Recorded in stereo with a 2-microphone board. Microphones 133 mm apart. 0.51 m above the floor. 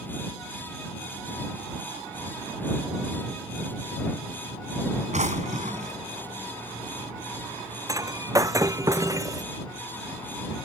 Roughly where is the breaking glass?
Right.